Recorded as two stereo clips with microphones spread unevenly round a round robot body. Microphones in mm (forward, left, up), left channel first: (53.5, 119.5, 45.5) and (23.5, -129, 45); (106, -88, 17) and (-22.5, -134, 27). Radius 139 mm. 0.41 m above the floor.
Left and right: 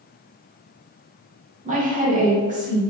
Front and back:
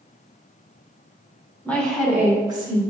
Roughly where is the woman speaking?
Ahead right.